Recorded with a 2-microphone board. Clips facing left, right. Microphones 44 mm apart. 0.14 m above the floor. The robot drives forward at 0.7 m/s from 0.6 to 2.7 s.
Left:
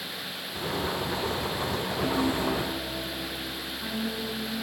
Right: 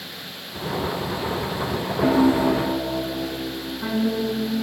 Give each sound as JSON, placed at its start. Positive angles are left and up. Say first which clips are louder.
{"t": 2.0, "sound": "a piano", "louder": "right 10 dB", "side_deg": -35}